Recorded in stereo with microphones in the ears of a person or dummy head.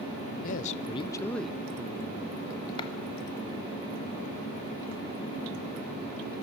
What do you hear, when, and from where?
0.4 s a man speaking: 45° left (ahead or behind), 0.7 m; by 2.7 s 35° right (ahead or behind), 1.0 m
2.8 s a clap: 25° left (ahead or behind), 1.5 m